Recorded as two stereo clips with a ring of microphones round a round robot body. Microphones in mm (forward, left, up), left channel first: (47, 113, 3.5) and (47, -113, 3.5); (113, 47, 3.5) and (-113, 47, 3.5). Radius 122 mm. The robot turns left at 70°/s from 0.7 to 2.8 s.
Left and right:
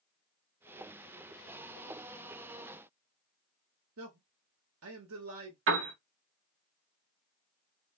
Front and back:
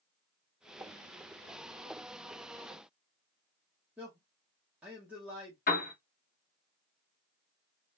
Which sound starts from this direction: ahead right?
A piano, at 5.7 s.